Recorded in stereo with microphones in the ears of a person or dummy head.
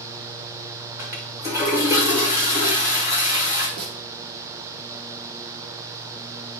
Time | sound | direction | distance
1.0 | a toilet flushing | 20° right (ahead or behind) | 1.9 m
3.8 | a snare drum | 75° right (ahead or behind) | 2 m